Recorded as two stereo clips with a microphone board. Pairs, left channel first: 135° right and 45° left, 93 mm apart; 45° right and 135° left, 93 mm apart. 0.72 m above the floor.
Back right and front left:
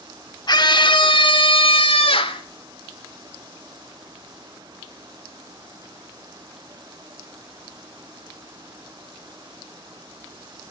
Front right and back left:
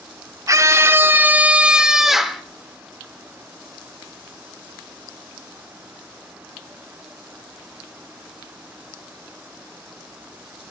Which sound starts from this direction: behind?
A scream, at 0.5 s.